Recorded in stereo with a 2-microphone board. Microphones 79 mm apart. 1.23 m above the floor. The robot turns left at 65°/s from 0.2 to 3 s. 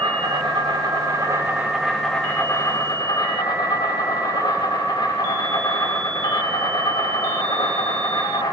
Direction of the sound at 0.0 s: 60° right.